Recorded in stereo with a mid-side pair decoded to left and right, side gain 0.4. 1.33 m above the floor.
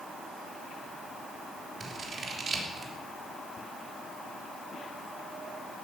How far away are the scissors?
About 3 m.